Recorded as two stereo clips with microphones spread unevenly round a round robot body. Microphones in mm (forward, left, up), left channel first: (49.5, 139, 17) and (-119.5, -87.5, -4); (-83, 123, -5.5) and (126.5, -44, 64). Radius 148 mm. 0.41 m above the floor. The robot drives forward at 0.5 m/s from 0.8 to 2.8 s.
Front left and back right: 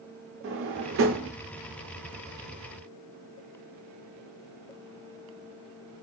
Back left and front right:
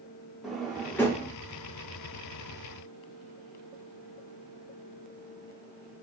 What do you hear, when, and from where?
0.4 s a drawer: 145° right, 0.6 m; by 1.3 s 155° right, 0.7 m